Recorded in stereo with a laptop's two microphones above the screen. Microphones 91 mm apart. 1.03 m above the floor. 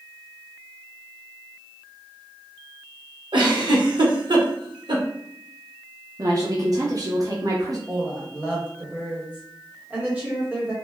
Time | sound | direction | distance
3.3 | a giggle | 55° right (ahead or behind) | 0.8 m
6.2 | a woman speaking | 45° right (ahead or behind) | 0.6 m
7.9 | a woman speaking | 20° right (ahead or behind) | 1.0 m